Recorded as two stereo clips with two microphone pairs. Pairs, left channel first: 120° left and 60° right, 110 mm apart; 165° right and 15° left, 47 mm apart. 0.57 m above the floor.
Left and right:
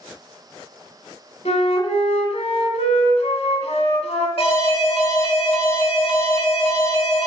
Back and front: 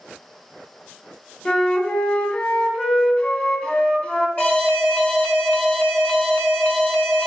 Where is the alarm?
140° left, 2 m.